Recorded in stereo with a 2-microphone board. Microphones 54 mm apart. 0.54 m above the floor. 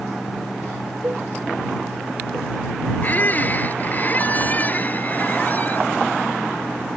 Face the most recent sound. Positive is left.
turn(degrees=35)  # may be behind; listen again after turning